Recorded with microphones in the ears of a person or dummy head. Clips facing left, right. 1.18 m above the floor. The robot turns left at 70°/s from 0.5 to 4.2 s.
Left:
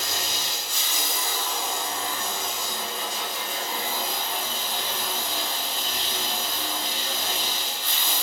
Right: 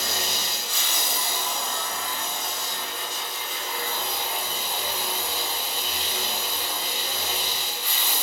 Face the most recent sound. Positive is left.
turn(degrees=-10)